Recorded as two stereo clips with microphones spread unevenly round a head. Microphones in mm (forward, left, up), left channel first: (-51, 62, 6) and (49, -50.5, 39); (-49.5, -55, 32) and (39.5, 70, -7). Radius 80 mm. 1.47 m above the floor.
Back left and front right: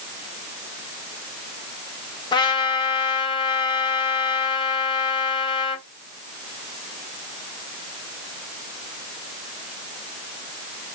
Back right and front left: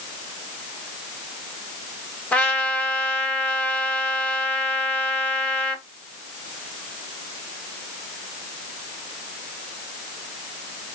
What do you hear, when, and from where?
2.3 s a trumpet: 165° right, 1.1 m